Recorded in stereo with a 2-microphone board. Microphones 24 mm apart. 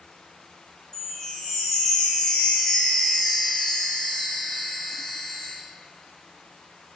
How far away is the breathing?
No breathing in this recording.